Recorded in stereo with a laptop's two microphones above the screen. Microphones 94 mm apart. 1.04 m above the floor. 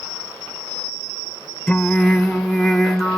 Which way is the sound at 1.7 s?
5° left (ahead or behind).